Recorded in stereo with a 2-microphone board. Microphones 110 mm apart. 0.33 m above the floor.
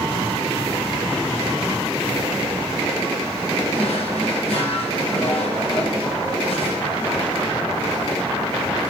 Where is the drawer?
60° left (ahead or behind), 3.5 m.